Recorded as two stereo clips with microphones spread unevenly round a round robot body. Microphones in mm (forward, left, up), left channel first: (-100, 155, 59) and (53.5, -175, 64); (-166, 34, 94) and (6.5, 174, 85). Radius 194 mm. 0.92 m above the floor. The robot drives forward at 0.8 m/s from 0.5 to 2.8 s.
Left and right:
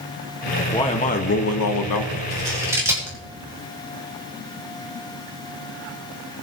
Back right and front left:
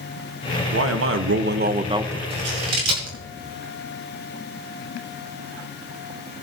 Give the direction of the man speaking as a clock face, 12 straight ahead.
11 o'clock.